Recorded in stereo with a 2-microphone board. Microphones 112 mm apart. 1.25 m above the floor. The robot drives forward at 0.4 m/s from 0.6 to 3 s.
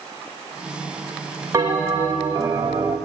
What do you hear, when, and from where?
1.5 s a bell: 30° right (ahead or behind), 2.5 m; by 3.0 s 25° right (ahead or behind), 3 m